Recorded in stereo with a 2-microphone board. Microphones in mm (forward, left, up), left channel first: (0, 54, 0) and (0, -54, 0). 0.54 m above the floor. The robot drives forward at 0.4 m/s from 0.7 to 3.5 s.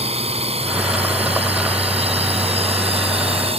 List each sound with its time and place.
0.0 s a drone: 70° right (ahead or behind)